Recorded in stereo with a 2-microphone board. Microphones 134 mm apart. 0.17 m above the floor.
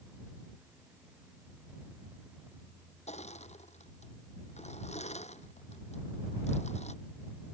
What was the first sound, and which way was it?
Crushing, 65° left (ahead or behind).